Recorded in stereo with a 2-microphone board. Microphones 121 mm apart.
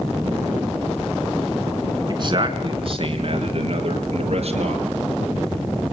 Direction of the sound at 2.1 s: 40° right (ahead or behind).